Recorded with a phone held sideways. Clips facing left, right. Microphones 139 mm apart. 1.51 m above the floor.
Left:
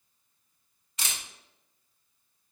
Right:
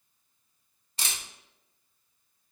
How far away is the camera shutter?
About 0.8 m.